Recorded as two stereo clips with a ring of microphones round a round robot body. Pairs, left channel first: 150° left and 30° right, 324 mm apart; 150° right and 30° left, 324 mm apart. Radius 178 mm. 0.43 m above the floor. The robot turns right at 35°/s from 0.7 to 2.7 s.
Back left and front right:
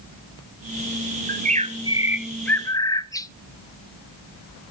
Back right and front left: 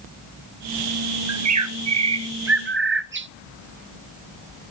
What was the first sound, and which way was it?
A bird, 25° left.